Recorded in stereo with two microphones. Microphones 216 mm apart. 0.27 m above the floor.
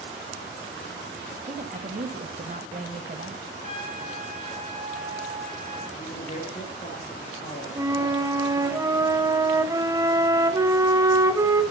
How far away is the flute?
About 1.6 m.